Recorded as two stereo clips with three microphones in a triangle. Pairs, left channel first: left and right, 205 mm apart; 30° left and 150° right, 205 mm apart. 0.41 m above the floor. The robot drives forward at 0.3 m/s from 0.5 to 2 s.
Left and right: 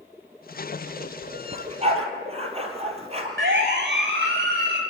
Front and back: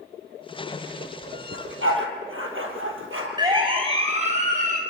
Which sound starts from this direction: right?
A siren, at 3.4 s.